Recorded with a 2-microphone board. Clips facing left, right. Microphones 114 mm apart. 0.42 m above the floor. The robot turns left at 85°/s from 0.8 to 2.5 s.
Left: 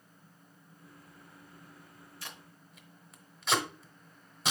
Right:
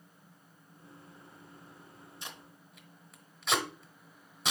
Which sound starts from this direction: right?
Tape being pulled, at 2.2 s.